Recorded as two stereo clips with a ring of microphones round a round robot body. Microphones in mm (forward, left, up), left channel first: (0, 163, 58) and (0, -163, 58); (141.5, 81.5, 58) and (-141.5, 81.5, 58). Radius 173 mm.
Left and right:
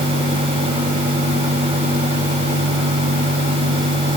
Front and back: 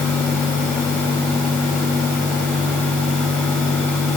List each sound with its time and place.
Only background noise.